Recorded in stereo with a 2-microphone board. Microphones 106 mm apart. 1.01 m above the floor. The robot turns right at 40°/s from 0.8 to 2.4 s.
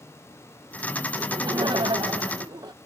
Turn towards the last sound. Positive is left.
turn(degrees=-75)